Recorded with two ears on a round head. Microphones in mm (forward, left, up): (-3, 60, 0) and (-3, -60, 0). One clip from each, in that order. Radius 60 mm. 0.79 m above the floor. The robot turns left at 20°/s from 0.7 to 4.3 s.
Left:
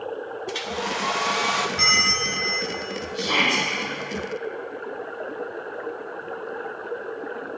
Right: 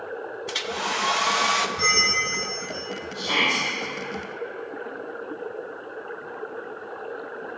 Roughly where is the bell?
Left.